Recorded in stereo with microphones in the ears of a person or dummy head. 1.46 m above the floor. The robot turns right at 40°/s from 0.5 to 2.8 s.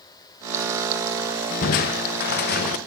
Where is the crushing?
70° left, 0.7 m; by 2.8 s 120° left, 0.7 m.